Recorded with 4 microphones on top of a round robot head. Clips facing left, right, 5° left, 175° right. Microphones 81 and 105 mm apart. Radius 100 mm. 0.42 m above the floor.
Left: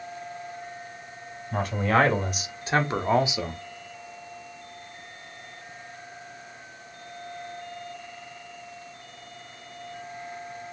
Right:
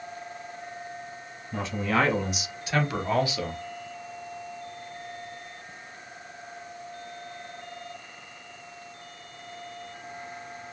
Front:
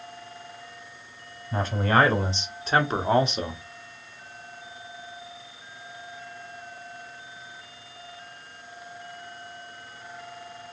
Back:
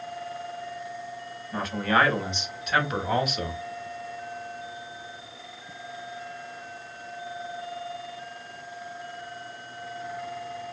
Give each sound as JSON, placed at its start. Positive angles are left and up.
{"t": 1.5, "sound": "a man speaking", "azimuth_deg": 60, "distance_m": 2.0}